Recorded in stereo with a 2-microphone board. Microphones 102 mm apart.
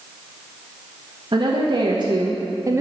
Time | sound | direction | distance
1.3 | a woman speaking | 55° right (ahead or behind) | 1.4 m